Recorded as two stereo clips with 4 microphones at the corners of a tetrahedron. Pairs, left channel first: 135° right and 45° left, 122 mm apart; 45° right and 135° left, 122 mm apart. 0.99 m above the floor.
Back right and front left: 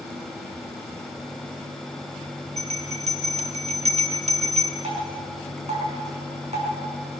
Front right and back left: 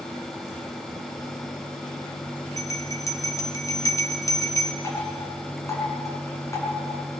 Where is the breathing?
No breathing in this recording.